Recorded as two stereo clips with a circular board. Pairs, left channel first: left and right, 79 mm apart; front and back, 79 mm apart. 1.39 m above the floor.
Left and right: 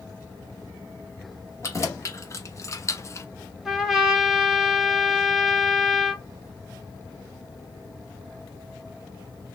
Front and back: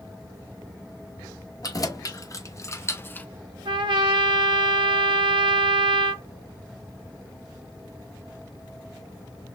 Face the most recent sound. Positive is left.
turn(degrees=180)